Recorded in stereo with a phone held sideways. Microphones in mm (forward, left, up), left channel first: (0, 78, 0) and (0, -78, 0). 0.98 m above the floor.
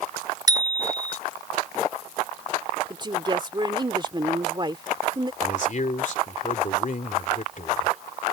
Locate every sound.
0.5 s a bicycle bell: 25° right (ahead or behind)
2.9 s a woman speaking: 30° right (ahead or behind)
5.4 s a man speaking: 55° left (ahead or behind)